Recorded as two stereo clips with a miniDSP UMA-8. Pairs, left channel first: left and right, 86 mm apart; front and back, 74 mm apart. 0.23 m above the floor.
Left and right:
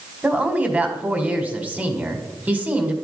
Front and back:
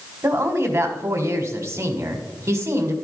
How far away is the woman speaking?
About 1.5 m.